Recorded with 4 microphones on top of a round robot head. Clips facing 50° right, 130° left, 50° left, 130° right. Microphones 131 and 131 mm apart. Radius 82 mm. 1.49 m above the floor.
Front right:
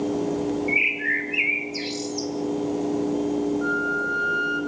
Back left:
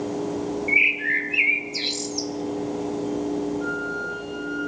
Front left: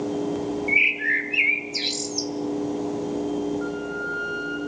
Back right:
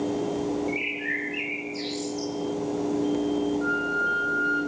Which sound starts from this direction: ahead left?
A bird, at 0.7 s.